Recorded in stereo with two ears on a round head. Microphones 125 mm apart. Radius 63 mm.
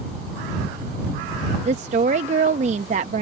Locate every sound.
1.6 s a woman speaking: 50° right (ahead or behind)